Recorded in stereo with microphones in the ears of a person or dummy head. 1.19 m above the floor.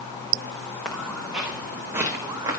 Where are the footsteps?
5° left (ahead or behind), 4.5 m; by 2.6 s 25° right (ahead or behind), 4 m.